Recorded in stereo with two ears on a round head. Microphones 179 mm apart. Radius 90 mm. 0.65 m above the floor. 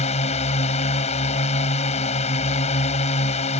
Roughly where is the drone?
Left.